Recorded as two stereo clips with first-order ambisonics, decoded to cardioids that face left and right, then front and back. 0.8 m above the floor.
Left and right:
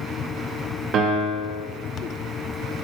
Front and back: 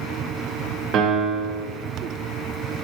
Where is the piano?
140° right, 0.9 m.